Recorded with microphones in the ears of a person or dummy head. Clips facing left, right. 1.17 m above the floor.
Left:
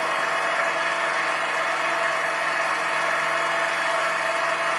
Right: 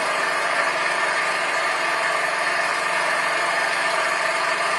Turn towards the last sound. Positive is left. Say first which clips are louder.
# right 1 dB
turn(degrees=-70)  # may be behind; listen again after turning